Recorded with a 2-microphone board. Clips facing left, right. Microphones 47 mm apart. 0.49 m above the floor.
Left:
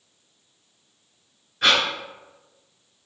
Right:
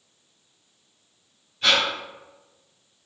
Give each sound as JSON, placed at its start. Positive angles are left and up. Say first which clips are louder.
{"t": 1.6, "sound": "breathing", "louder": "left 1 dB", "side_deg": 70, "distance_m": 1.2}